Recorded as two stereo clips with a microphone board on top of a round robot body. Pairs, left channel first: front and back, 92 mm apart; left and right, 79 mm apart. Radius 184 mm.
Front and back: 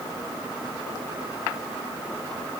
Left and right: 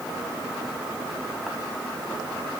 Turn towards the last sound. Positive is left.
No sound to turn to.